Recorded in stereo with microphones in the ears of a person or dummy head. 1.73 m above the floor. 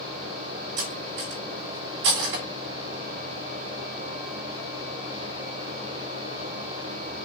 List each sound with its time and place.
0.8 s cutlery clinking: 60° right (ahead or behind), 1.9 m